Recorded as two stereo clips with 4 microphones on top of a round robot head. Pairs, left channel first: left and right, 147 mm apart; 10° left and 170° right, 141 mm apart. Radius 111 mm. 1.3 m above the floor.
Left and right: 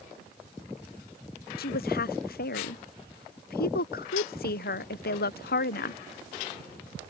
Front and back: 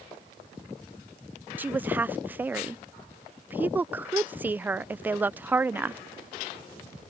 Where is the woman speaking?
110° left.